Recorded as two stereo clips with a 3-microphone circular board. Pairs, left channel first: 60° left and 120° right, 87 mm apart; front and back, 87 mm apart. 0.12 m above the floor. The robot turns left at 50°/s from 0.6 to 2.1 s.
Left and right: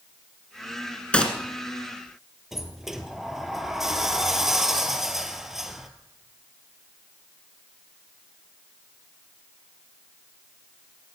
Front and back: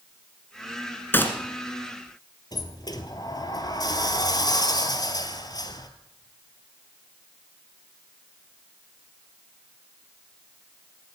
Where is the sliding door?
35° right, 1.2 m.